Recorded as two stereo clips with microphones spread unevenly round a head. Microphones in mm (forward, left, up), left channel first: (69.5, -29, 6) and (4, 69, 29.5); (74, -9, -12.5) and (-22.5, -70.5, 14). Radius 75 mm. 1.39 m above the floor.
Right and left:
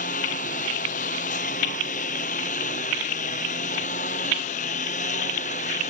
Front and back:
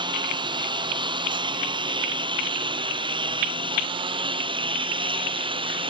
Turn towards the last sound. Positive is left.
turn(degrees=-100)